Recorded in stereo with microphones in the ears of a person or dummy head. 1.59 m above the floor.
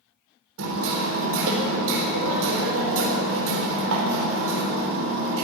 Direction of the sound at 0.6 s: 70° right (ahead or behind).